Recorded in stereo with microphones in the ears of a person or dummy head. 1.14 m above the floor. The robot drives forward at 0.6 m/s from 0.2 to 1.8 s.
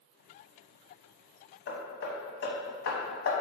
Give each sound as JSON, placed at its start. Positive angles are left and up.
{"t": 1.7, "sound": "hammering", "side_deg": 65, "distance_m": 1.2}